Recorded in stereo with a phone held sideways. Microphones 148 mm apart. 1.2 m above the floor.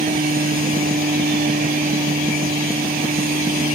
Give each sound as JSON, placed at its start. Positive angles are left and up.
{"t": 0.0, "sound": "a machine running", "side_deg": -85}